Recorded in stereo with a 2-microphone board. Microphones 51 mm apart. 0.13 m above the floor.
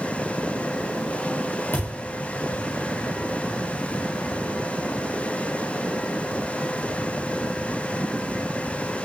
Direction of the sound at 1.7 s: 50° left (ahead or behind).